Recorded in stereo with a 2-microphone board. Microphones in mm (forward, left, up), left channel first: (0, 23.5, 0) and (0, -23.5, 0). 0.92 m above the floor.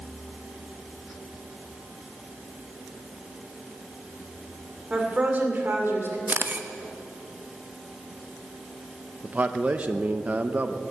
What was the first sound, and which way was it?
A woman speaking, 20° right (ahead or behind).